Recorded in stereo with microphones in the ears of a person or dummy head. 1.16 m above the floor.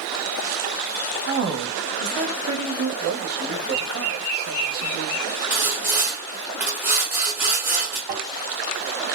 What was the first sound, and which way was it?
A woman speaking, 55° right (ahead or behind).